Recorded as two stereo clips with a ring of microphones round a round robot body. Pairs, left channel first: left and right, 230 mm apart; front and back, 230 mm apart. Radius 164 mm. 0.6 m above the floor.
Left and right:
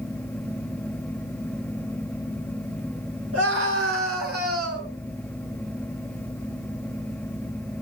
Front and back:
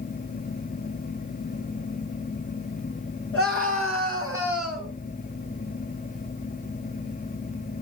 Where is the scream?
85° right, 8 m; by 4.9 s 80° right, 8.5 m.